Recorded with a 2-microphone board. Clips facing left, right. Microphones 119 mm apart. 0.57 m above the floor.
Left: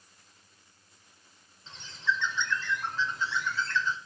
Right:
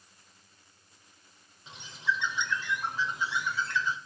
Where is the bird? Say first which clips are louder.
Left 1 dB; 15° right (ahead or behind), 1.0 m.